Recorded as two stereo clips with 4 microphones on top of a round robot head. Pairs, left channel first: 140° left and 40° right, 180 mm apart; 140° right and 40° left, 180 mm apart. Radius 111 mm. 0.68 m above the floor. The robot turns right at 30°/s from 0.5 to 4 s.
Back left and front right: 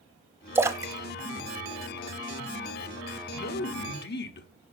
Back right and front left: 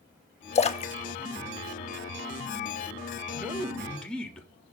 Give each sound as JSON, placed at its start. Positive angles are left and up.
{"t": 0.6, "sound": "a splash", "azimuth_deg": -110, "distance_m": 0.6}
{"t": 3.3, "sound": "a man speaking", "azimuth_deg": 115, "distance_m": 1.2}